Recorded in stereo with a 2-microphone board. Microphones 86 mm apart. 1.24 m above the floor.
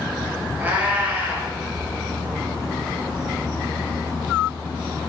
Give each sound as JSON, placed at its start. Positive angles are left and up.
{"t": 0.6, "sound": "a cat meowing", "side_deg": -20, "distance_m": 3.5}